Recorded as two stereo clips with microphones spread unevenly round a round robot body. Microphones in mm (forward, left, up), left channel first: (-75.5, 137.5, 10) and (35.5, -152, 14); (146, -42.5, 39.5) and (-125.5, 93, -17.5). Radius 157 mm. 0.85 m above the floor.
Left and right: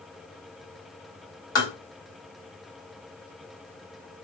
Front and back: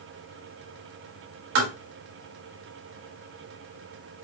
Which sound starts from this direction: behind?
Tapping, at 1.6 s.